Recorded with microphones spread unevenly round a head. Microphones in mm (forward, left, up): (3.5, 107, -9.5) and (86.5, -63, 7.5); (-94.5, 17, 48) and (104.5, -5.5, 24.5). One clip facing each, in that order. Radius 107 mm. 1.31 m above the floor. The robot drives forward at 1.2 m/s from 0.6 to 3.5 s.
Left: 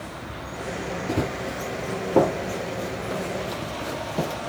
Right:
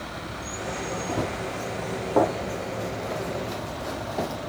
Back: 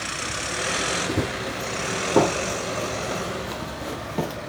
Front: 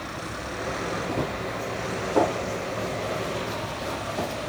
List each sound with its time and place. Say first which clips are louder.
1.1 s running footsteps: left 4 dB, back 2 dB; 170° left, 1.4 m